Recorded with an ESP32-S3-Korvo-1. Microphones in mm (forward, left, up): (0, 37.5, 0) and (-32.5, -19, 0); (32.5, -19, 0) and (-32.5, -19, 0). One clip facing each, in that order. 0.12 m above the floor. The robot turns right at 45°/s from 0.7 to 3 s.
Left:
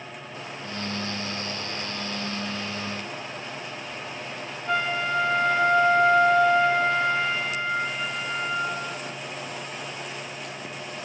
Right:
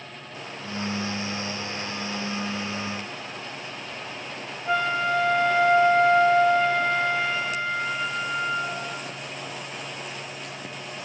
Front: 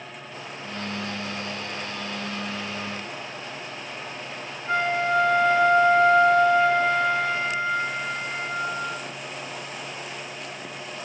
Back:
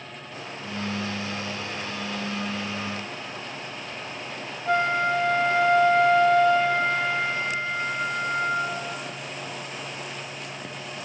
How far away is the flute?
About 0.7 m.